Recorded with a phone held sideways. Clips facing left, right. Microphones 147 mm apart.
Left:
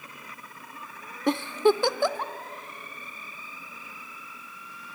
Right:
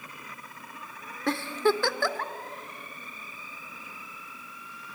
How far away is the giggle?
About 0.6 m.